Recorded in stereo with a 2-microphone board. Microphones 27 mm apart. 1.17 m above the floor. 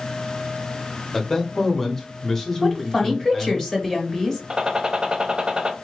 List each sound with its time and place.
1.1 s a man speaking: 10° left (ahead or behind), 1.0 m
2.6 s a woman speaking: 25° left (ahead or behind), 1.0 m
4.5 s a gunshot: 30° right (ahead or behind), 0.7 m